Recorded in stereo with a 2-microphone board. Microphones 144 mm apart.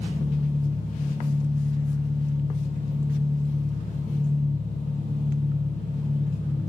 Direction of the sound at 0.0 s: 80° right.